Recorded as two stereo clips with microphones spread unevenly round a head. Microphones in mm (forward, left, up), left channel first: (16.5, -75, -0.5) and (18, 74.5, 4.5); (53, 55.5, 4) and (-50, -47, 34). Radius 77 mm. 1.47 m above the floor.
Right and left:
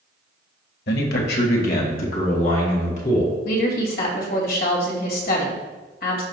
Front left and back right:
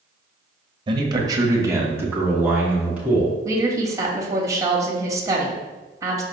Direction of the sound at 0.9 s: 75° right.